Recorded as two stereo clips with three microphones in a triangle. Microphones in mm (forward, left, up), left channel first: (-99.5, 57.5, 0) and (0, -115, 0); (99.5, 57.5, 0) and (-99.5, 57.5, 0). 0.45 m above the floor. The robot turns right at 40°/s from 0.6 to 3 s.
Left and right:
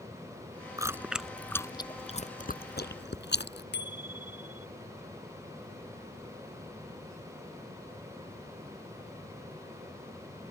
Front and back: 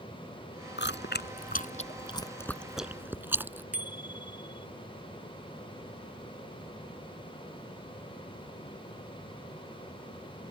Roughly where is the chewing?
Ahead.